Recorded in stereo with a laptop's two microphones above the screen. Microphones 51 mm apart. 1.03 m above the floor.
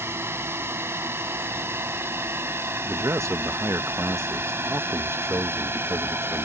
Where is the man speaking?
65° right (ahead or behind).